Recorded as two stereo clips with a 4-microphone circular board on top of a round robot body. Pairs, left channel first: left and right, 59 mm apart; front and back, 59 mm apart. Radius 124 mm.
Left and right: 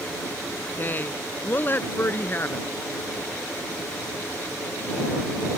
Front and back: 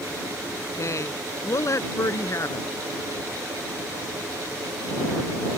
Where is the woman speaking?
30° left; by 2.7 s 35° left.